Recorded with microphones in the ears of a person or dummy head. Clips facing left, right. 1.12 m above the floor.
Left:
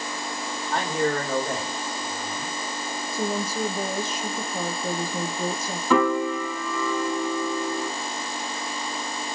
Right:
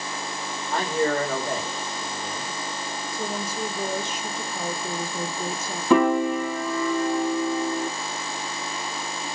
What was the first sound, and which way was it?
A man speaking, centre (ahead or behind).